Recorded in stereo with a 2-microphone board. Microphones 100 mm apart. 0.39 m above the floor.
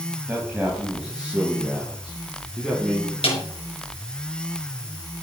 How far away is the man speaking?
About 3 m.